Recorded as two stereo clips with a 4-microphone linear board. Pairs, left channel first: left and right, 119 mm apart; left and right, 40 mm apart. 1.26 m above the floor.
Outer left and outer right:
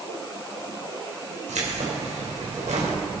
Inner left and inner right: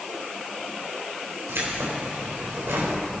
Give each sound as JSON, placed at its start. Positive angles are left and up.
{"t": 1.5, "sound": "keys jangling", "side_deg": -85, "distance_m": 4.0}